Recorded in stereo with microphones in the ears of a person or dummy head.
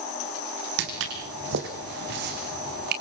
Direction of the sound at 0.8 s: 65° right (ahead or behind).